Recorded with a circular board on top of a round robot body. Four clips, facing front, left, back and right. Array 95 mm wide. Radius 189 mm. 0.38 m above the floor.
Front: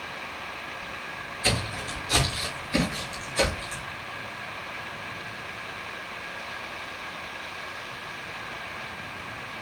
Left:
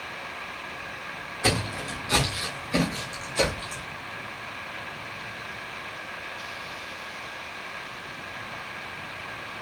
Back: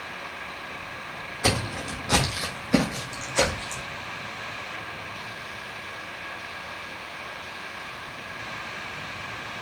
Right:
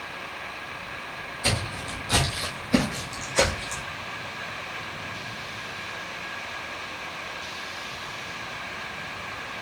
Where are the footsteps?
160° left, 1.7 m; by 3.8 s 120° right, 2.5 m.